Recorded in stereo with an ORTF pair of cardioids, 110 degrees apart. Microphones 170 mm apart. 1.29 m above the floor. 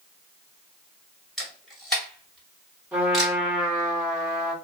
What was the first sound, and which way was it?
A camera shutter, straight ahead.